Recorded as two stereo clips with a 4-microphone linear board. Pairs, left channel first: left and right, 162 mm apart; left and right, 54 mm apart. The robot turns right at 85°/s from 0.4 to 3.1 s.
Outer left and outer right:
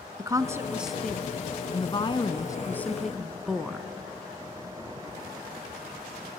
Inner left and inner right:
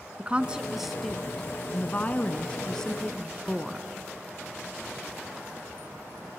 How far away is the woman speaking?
About 1.1 m.